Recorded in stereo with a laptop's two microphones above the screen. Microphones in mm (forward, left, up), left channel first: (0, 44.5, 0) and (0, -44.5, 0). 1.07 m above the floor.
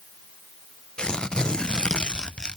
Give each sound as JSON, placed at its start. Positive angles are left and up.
{"t": 1.0, "sound": "tearing paper", "side_deg": 10, "distance_m": 0.5}